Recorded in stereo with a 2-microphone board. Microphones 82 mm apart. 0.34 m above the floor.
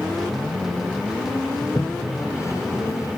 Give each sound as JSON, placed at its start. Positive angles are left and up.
{"t": 1.6, "sound": "a toilet flushing", "side_deg": 40}